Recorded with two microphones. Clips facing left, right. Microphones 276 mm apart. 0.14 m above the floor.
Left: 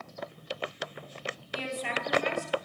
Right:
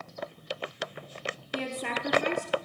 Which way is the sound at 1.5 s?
60° right (ahead or behind).